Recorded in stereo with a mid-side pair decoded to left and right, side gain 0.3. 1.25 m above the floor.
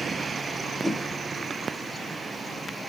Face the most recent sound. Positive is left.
turn(degrees=0)